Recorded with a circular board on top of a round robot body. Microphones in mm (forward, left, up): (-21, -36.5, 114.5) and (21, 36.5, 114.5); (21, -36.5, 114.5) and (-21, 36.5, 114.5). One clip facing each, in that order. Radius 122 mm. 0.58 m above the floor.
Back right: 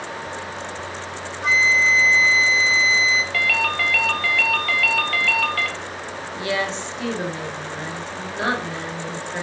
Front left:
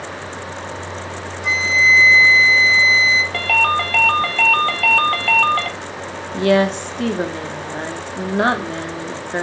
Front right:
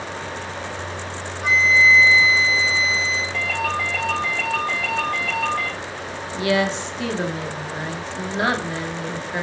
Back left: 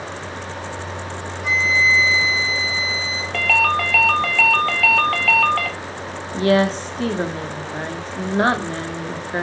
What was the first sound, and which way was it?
A flute, 85° right.